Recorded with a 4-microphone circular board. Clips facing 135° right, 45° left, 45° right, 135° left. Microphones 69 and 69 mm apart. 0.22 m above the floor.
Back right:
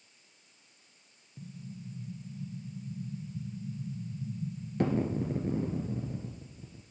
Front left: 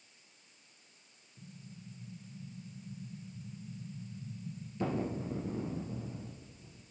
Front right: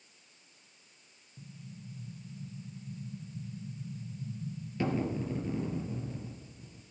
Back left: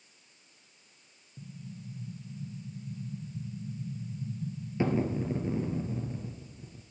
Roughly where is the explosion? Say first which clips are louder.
Back right 7 dB, back left 4 dB; behind right.